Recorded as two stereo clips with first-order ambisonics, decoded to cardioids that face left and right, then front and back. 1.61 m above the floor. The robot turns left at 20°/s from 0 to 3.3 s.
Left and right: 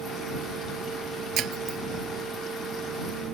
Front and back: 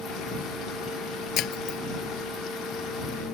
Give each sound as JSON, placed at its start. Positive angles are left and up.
{"t": 1.4, "sound": "breaking glass", "azimuth_deg": -40}